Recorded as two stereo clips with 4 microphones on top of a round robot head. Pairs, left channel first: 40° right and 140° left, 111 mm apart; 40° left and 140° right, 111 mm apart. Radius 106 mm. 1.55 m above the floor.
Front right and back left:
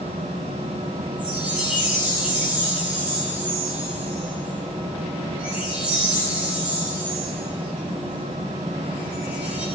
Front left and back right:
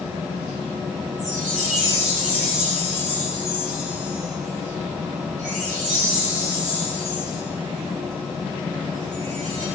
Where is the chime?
140° right, 10 m.